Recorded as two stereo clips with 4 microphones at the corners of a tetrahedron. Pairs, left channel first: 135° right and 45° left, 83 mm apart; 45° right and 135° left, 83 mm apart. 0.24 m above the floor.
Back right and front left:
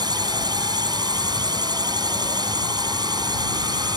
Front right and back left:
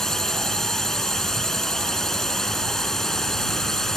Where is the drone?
40° left.